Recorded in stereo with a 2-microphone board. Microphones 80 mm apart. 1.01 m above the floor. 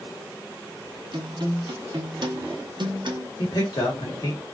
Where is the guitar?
60° right (ahead or behind), 0.7 m.